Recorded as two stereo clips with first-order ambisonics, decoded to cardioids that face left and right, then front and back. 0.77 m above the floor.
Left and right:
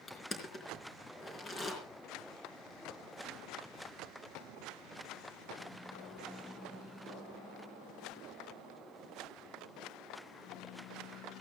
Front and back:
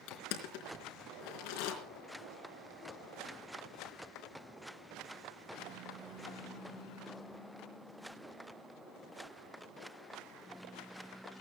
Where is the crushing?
15° left, 3.5 m.